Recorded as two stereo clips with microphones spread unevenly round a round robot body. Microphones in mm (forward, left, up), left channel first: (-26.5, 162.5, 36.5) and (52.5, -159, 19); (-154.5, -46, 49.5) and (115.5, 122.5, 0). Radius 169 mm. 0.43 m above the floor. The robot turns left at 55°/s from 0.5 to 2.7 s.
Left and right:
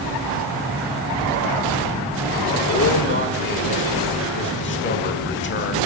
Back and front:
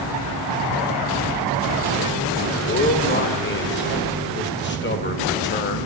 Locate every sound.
2.7 s a man speaking: 155° left, 1.8 m